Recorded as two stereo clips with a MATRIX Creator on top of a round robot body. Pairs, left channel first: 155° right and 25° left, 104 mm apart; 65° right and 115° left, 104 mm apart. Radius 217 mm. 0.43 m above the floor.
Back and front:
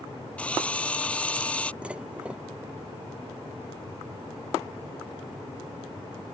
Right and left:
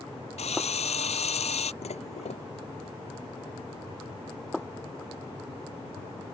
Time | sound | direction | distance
0.4 | a drill | 80° right | ?
1.8 | dishes clattering | 55° right | ?